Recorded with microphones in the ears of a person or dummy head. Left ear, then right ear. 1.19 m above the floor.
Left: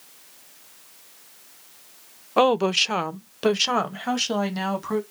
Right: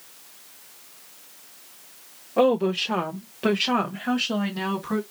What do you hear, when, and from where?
2.4 s a woman speaking: 40° left (ahead or behind), 0.6 m; by 5.0 s 65° left (ahead or behind), 1.8 m